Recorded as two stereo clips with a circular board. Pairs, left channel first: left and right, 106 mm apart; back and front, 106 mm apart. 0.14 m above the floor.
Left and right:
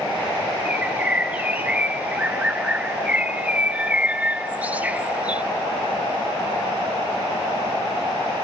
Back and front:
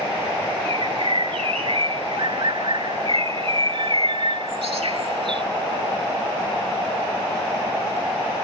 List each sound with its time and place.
0.7 s a bird: 15° right